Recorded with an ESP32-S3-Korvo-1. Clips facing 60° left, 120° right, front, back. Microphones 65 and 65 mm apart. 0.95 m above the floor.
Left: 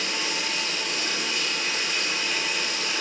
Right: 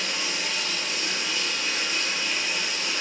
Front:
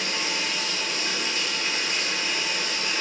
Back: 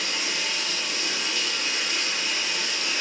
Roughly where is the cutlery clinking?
I don't hear cutlery clinking.